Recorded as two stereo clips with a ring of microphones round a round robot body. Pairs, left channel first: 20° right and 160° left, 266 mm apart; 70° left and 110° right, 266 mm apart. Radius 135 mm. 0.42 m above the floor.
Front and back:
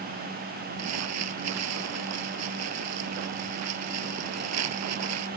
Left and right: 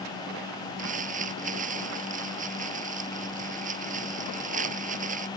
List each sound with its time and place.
0.8 s crumpling: 175° right